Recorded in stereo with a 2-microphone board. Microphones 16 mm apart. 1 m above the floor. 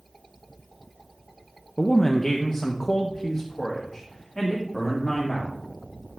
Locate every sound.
1.8 s a man speaking: 30° left (ahead or behind), 0.5 m; by 5.5 s 20° left (ahead or behind), 2.5 m